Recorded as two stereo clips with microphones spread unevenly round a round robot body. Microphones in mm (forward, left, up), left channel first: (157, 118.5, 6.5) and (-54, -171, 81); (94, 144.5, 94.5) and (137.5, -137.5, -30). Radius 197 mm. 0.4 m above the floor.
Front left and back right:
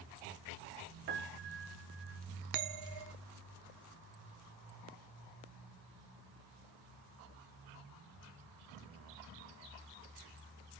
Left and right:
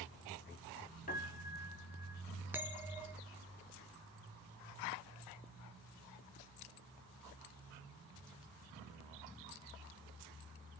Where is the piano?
170° left, 0.8 m.